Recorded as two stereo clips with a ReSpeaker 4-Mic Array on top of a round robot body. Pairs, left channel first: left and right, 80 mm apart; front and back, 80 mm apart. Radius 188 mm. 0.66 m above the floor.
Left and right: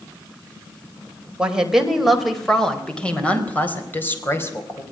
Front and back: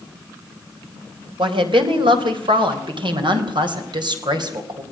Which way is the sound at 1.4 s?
170° right.